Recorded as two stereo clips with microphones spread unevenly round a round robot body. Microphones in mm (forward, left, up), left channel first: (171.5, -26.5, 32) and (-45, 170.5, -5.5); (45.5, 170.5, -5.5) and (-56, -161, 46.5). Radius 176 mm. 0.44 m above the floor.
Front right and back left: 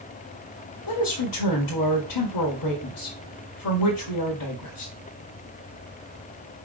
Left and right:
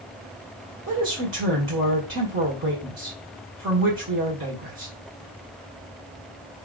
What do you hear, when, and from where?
0.9 s a woman speaking: 50° right, 2 m